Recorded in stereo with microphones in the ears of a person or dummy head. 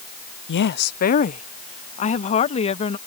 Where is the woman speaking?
65° left (ahead or behind); by 3.0 s 35° left (ahead or behind).